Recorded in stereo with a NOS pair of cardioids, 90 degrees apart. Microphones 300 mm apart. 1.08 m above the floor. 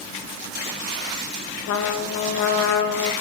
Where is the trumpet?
65° left, 1.1 m.